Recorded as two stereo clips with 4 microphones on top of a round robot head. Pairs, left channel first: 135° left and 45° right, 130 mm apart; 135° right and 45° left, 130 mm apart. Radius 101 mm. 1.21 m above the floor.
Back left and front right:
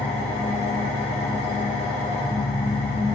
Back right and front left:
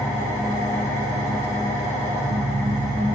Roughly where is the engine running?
Behind.